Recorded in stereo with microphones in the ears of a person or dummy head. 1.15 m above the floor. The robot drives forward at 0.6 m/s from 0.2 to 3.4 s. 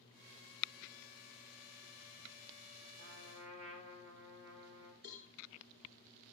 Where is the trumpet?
65° right (ahead or behind), 4 m.